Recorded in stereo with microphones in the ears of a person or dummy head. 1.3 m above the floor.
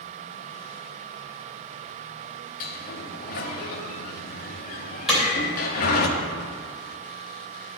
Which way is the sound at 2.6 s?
50° left (ahead or behind).